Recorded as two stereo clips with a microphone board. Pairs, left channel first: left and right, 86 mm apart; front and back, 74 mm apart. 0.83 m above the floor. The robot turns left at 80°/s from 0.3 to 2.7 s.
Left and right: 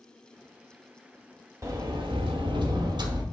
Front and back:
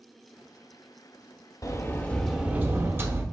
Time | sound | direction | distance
1.6 | a sliding door | 35° right | 1.0 m